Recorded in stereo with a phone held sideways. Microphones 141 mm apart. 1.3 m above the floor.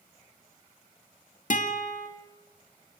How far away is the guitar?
About 2 m.